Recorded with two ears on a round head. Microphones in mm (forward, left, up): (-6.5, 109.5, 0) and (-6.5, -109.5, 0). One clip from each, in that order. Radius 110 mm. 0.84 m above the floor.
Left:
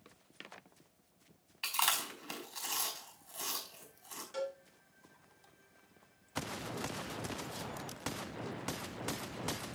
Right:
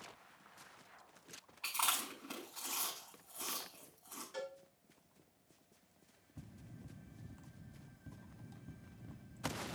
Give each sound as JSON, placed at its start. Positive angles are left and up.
{"t": 1.6, "sound": "chewing", "side_deg": 60, "distance_m": 4.5}
{"t": 4.3, "sound": "a cowbell", "side_deg": 25, "distance_m": 6.0}